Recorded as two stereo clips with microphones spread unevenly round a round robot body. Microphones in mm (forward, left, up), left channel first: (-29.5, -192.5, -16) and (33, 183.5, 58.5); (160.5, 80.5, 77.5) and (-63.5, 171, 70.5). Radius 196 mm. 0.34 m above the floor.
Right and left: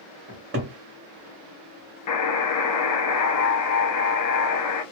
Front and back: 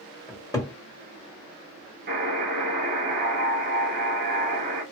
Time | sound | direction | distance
0.3 | a cupboard door | 40° left | 1.3 m
2.1 | a buzzer | 145° right | 0.6 m